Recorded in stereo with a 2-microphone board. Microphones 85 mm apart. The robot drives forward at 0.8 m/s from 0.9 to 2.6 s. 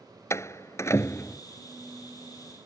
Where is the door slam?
35° left (ahead or behind); by 1.4 s 30° left (ahead or behind).